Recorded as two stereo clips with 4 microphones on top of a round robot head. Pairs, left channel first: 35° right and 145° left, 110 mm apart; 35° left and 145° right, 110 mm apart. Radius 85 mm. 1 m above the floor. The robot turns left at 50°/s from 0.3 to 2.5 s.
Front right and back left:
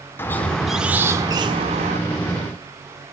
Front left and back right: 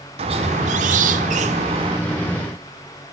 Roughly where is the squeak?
Right.